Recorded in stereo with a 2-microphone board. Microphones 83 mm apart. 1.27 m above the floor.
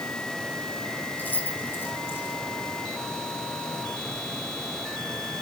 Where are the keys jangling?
20° left (ahead or behind), 4 m; by 2.4 s 30° left (ahead or behind), 5 m.